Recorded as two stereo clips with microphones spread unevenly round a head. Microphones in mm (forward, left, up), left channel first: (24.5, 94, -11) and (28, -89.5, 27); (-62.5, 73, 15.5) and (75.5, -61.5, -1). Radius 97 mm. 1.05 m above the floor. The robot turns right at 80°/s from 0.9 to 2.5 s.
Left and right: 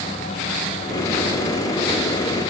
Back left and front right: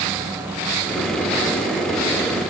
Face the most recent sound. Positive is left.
No sound to turn to.